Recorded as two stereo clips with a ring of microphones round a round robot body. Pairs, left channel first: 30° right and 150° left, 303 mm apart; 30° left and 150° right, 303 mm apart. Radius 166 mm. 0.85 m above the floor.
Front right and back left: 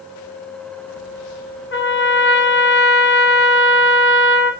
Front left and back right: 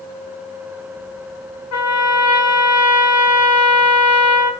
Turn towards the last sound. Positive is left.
turn(degrees=15)